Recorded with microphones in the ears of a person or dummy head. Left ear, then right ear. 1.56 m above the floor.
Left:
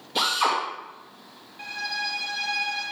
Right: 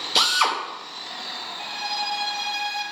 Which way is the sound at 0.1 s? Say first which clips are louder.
Right 3 dB; 60° right (ahead or behind).